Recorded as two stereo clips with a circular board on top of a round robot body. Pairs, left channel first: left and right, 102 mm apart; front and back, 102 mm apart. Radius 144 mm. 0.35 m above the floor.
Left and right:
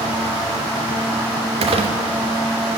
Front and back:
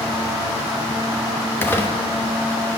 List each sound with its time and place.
1.6 s crumpling: 70° right, 1.1 m